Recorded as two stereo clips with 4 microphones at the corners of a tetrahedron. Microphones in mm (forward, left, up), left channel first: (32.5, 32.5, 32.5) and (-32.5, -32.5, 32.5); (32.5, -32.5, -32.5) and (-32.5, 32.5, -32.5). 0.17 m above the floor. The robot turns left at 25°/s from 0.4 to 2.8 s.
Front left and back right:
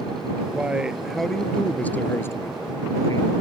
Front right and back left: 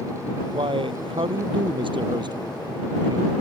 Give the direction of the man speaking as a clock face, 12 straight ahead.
7 o'clock.